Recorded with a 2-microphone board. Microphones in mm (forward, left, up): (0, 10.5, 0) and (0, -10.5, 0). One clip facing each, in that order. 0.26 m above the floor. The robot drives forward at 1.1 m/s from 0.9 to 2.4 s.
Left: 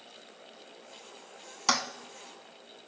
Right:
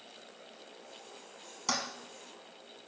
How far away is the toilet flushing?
About 0.6 m.